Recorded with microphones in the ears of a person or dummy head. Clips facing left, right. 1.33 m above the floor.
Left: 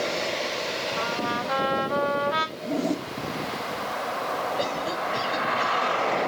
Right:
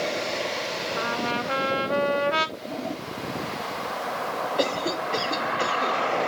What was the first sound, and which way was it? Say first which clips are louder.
A trumpet: right 2 dB; 30° right (ahead or behind).